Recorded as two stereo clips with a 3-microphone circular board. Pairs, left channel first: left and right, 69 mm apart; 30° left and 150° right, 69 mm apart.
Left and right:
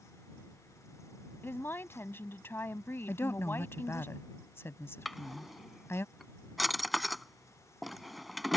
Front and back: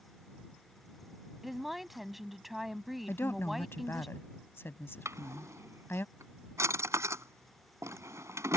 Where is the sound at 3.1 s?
65° left.